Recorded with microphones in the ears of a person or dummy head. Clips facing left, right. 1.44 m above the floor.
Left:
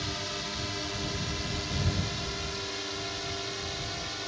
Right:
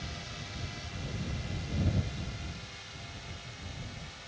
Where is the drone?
65° left (ahead or behind); by 4.3 s 70° left (ahead or behind).